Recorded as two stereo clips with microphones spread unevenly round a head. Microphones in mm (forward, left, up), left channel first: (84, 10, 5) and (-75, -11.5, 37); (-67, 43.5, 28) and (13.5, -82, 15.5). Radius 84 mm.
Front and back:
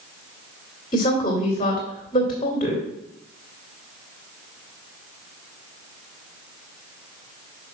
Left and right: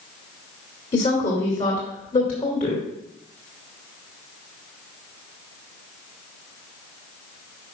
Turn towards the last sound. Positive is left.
turn(degrees=70)